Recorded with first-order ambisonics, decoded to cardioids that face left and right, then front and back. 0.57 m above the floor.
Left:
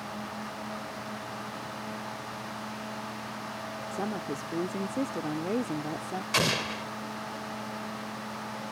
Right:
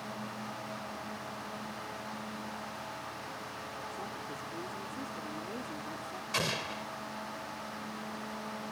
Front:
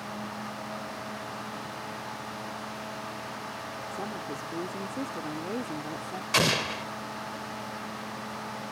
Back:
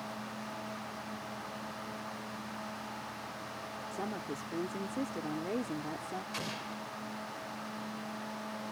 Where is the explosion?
25° left.